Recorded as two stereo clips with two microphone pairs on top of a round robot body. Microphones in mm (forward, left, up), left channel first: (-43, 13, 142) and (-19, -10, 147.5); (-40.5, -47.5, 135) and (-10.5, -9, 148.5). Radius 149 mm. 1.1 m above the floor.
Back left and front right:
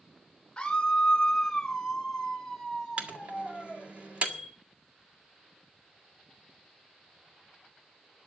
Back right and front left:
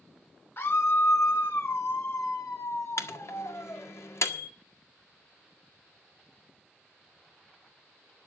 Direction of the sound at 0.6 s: 160° right.